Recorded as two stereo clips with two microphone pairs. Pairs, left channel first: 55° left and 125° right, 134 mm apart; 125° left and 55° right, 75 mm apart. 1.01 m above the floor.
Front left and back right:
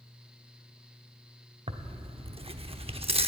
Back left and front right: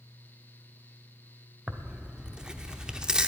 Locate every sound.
1.7 s tearing paper: 125° right, 0.7 m